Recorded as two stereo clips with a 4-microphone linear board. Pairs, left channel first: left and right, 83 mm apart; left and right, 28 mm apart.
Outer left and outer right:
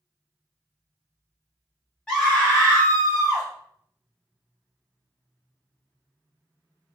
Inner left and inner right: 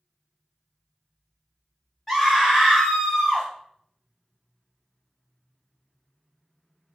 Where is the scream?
10° left (ahead or behind), 1.5 m; by 3.5 s 35° left (ahead or behind), 1.5 m.